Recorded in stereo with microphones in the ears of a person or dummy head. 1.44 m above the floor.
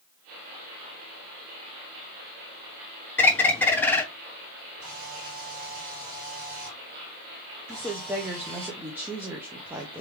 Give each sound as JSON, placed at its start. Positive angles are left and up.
{"t": 3.2, "sound": "a bird", "side_deg": 10, "distance_m": 0.6}
{"t": 4.8, "sound": "a camera shutter", "side_deg": -50, "distance_m": 2.0}
{"t": 7.7, "sound": "a woman speaking", "side_deg": -15, "distance_m": 0.6}